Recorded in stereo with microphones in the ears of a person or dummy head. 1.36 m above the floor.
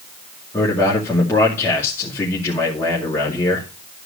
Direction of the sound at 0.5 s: 10° left (ahead or behind).